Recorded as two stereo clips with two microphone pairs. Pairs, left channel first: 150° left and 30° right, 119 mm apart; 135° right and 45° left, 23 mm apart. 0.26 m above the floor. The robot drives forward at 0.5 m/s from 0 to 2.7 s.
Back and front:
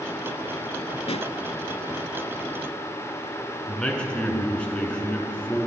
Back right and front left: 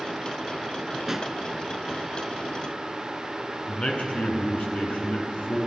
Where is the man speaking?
130° right, 2.5 m.